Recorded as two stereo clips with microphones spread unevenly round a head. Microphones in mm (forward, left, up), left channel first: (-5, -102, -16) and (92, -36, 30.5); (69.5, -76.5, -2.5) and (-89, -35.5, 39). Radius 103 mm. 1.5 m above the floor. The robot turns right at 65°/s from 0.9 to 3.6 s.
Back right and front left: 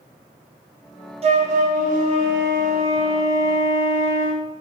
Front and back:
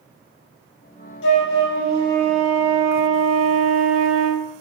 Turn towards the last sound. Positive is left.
turn(degrees=150)